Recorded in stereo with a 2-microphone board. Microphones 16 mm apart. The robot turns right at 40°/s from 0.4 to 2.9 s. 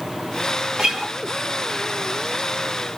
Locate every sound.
0.8 s a guitar: 65° right (ahead or behind), 0.8 m; by 1.1 s 55° right (ahead or behind), 0.8 m